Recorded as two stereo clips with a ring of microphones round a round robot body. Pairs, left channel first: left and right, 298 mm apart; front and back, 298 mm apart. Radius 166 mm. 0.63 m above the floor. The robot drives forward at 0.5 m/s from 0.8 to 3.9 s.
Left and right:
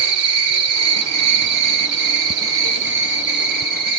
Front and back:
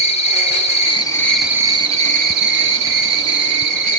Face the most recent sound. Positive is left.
turn(degrees=-155)